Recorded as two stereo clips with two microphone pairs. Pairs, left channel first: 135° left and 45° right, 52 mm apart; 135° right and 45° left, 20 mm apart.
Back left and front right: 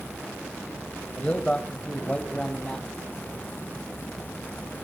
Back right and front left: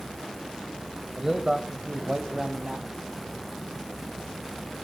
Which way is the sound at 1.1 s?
105° left.